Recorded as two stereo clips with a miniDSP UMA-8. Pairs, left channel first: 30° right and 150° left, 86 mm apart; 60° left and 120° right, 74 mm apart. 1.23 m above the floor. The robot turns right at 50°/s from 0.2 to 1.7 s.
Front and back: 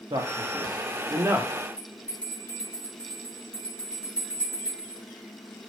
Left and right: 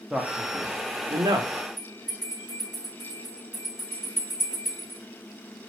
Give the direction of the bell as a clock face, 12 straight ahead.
12 o'clock.